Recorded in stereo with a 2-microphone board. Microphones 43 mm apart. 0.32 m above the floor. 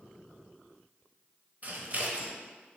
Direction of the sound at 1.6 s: 40° right (ahead or behind).